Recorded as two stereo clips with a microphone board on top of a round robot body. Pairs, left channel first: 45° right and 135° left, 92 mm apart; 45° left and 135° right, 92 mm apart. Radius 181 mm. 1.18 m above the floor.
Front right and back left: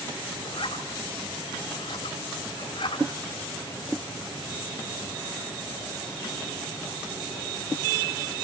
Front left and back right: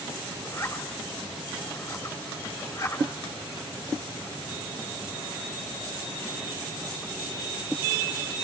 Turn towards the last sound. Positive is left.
turn(degrees=-10)